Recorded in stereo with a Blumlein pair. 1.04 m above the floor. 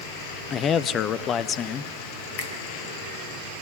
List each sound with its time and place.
0.5 s a man speaking: 30° left, 0.8 m
2.4 s a finger snap: 50° left, 3.5 m